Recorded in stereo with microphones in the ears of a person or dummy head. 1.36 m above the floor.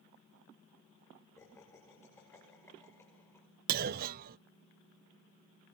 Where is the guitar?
I don't hear a guitar.